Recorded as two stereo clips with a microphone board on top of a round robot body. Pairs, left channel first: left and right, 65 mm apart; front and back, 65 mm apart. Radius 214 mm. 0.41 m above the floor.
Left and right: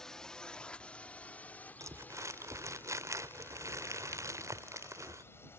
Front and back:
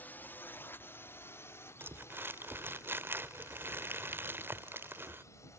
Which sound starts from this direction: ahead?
A drone, at 0.0 s.